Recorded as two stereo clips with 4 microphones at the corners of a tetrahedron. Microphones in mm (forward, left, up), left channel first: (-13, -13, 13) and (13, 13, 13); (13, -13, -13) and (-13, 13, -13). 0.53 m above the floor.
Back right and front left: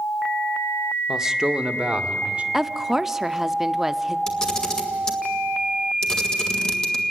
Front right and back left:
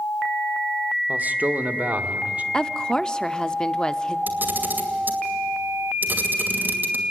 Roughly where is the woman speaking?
Ahead.